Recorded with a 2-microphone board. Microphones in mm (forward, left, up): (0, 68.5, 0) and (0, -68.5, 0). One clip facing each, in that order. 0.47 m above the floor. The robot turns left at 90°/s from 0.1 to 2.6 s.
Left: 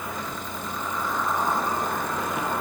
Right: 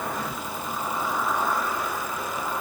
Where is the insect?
75° right, 3 m; by 2.6 s 60° left, 3 m.